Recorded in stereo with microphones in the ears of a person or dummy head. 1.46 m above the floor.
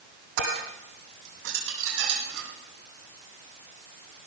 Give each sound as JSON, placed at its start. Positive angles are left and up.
{"t": 0.4, "sound": "dishes clattering", "side_deg": -75, "distance_m": 8.0}